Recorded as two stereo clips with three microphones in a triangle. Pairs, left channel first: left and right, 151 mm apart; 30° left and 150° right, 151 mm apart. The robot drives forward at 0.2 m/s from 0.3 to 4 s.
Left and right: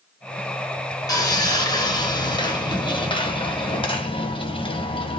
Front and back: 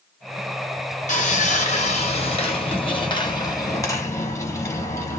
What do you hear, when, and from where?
1.1 s sawing: 30° left, 0.9 m; by 5.2 s 85° left, 0.6 m